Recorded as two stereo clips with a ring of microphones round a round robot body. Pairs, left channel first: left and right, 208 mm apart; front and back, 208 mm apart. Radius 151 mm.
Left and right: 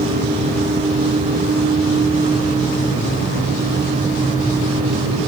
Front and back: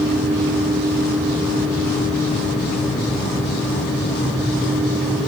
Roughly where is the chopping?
No chopping in this recording.